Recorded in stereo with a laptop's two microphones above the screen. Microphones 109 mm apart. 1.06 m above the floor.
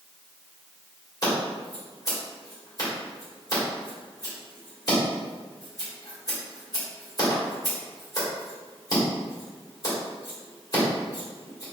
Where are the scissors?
35° left (ahead or behind), 1.5 m.